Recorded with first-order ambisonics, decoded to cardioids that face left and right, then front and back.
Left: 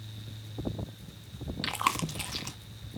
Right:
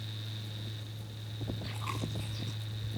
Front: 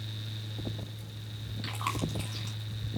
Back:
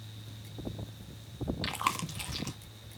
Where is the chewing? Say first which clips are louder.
Left 13 dB, back 2 dB; 110° left, 1.7 m.